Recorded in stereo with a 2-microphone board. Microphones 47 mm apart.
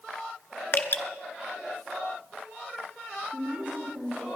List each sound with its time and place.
0.7 s dripping: 60° left (ahead or behind), 0.9 m
3.3 s a woman speaking: 45° right (ahead or behind), 2.5 m